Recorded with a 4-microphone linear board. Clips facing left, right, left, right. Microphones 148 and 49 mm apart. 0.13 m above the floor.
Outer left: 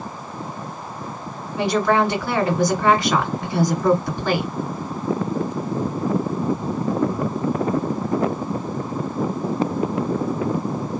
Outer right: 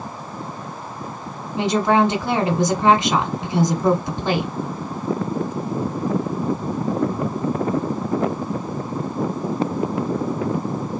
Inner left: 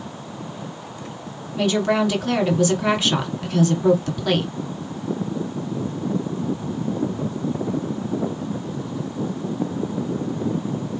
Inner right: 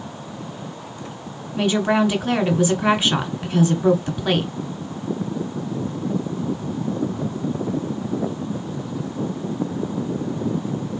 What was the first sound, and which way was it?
A woman speaking, 20° right (ahead or behind).